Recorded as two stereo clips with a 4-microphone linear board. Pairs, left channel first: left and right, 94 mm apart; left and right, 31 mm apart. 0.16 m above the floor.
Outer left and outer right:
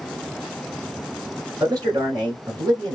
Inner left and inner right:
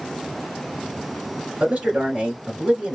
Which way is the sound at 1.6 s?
40° right (ahead or behind).